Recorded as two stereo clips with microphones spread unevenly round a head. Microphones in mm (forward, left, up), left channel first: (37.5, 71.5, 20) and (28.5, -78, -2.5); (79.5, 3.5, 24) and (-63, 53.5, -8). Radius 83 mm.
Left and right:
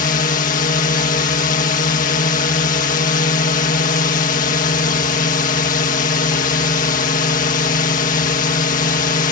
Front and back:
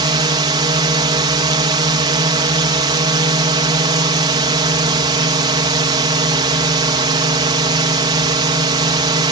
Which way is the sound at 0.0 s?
115° left.